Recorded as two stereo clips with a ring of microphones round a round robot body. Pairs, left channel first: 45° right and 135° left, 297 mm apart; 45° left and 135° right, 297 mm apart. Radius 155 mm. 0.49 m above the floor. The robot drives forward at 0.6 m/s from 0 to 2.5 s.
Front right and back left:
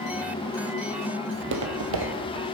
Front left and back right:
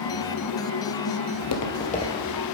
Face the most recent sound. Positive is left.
turn(degrees=135)